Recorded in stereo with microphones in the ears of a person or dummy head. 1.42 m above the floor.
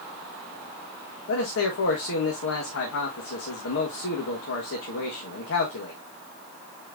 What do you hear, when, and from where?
1.3 s a man speaking: 75° left (ahead or behind), 1.6 m